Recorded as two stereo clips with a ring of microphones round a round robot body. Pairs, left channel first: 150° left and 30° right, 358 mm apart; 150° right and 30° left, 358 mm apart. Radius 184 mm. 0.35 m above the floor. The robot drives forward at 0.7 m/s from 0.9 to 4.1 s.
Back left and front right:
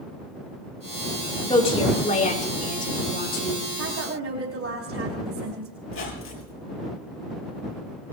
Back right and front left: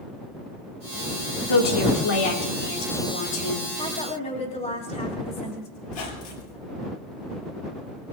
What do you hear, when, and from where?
1.5 s a woman speaking: 135° right, 4 m; by 3.6 s 145° right, 5.5 m
3.8 s a woman speaking: 75° right, 3.5 m; by 5.7 s 80° right, 3.5 m
5.8 s a squeak: 155° right, 4.5 m